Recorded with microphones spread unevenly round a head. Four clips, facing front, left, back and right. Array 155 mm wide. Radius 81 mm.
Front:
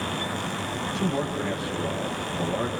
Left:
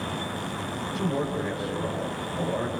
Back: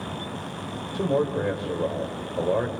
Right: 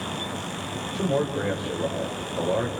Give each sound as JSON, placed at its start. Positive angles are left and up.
{"t": 0.9, "sound": "a man speaking", "azimuth_deg": -160, "distance_m": 5.5}